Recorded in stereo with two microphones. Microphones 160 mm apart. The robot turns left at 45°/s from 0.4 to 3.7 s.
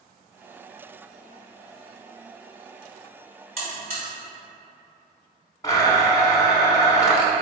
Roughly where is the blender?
Left.